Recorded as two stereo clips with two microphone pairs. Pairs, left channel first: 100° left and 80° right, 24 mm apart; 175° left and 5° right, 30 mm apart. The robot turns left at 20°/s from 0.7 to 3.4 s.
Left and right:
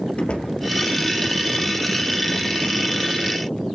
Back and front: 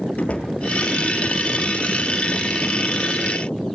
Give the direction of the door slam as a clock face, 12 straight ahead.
8 o'clock.